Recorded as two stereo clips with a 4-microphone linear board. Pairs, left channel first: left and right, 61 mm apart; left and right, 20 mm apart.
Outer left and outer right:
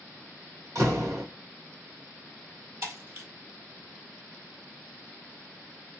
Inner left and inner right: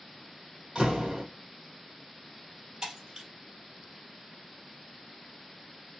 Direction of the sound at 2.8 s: 45° right (ahead or behind).